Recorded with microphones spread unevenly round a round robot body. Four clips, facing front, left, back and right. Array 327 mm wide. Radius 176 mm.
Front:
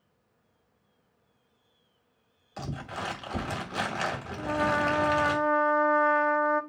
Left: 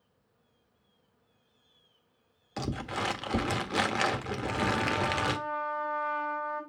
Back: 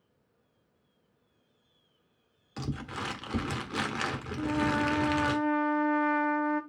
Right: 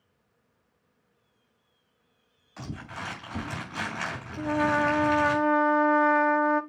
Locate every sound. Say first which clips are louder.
2.6 s crumpling: left 5 dB, even; 115° left, 1.6 m
4.4 s a trumpet: right 9 dB, front 1 dB; 80° right, 1.1 m